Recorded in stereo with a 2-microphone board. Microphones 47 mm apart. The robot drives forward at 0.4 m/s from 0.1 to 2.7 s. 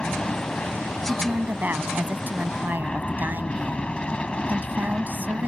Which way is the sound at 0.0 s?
20° left (ahead or behind).